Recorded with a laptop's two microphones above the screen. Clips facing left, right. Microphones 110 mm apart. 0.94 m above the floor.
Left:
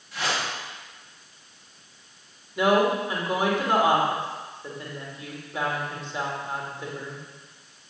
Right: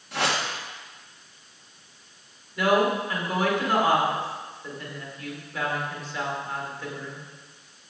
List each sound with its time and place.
0.1 s a whoosh: 65° right (ahead or behind), 1.7 m
2.6 s a woman speaking: 20° left (ahead or behind), 2.5 m